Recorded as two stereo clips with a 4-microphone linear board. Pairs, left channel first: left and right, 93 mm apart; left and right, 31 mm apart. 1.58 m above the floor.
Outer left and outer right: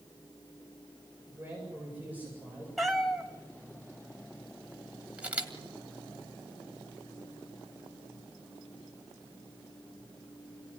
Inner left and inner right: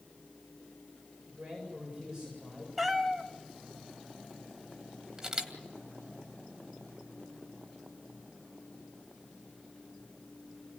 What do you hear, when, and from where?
1.3 s a man speaking: 20° right (ahead or behind), 8 m
2.8 s a cat meowing: centre (ahead or behind), 1.5 m
5.2 s a camera shutter: 15° right (ahead or behind), 2.5 m